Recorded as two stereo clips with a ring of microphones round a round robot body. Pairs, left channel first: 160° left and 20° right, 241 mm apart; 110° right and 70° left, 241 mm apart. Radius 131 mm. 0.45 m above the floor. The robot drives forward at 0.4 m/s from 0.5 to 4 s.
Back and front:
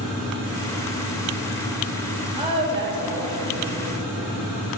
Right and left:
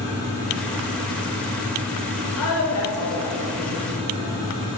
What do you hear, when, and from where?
2.4 s a woman speaking: 90° right, 2 m; by 4.3 s 105° right, 2 m